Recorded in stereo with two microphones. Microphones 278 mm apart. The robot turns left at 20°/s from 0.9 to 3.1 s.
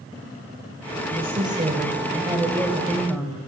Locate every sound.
1.1 s a woman speaking: 140° right, 2 m; by 3.4 s straight behind, 2 m